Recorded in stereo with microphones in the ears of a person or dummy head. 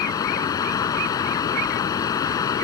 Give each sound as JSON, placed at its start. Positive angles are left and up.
{"t": 0.0, "sound": "running water", "side_deg": 20}